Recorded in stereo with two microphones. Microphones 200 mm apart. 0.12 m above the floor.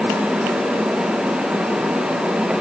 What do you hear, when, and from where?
Only background noise.